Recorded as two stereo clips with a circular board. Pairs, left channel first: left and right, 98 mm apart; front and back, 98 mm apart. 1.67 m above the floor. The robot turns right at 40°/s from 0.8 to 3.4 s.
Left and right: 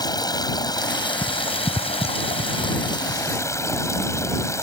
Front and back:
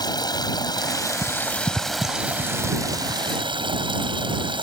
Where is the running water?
45° left; by 4.6 s 150° left.